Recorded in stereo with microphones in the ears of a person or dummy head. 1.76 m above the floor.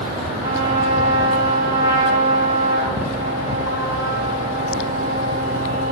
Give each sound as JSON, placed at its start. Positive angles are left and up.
{"t": 0.4, "sound": "a trumpet", "side_deg": -20, "distance_m": 2.0}